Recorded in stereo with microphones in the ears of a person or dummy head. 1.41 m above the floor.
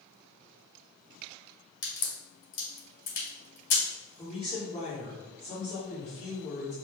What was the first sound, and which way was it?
A crack, 55° left (ahead or behind).